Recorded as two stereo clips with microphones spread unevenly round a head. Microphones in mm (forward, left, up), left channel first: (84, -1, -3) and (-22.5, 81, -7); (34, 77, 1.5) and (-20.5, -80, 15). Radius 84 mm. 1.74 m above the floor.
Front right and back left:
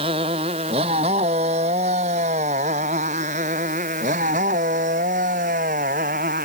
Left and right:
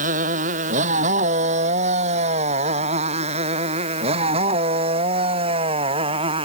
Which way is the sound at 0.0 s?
155° right.